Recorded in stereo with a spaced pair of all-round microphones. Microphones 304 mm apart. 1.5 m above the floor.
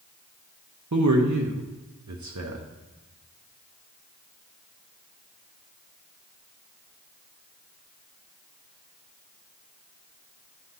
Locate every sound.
0.9 s a man speaking: 65° right (ahead or behind), 0.8 m